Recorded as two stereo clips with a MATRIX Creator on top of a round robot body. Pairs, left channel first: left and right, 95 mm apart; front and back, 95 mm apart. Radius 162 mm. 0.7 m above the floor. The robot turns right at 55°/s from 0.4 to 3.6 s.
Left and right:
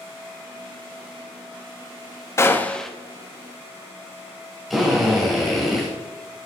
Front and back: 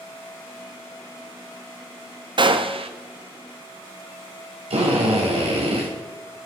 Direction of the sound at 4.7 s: Straight behind.